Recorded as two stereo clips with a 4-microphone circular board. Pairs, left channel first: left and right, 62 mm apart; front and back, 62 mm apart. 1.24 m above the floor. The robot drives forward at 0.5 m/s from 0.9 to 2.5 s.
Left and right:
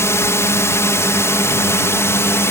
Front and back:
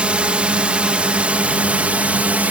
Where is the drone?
115° left; by 2.5 s 120° left.